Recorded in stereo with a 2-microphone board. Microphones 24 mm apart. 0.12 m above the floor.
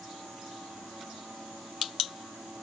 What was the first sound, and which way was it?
Only background noise.